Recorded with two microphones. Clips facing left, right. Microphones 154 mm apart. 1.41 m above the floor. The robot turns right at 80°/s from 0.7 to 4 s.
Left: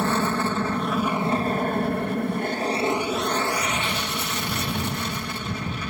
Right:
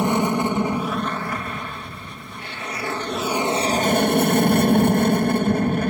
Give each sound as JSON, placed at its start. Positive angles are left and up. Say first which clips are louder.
{"t": 0.0, "sound": "an aircraft", "louder": "right 4 dB", "azimuth_deg": -20}